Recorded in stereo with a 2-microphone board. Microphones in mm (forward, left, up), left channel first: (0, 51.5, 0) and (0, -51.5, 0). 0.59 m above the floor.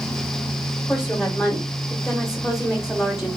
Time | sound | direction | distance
0.9 | a woman speaking | 5° right (ahead or behind) | 1.3 m